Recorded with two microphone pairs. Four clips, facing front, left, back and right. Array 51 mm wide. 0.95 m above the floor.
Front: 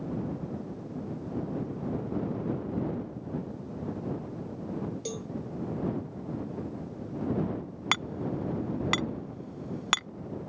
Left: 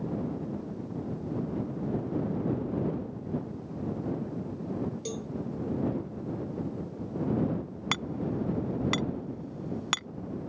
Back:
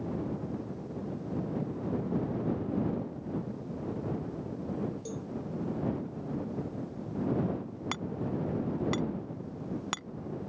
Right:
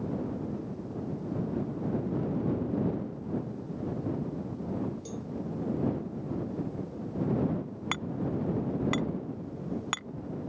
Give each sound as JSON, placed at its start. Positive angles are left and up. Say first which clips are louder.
{"t": 5.0, "sound": "a cowbell", "louder": "left 3 dB, front 2 dB", "azimuth_deg": 25}
{"t": 7.9, "sound": "hammering", "louder": "left 1 dB, front 5 dB", "azimuth_deg": -10}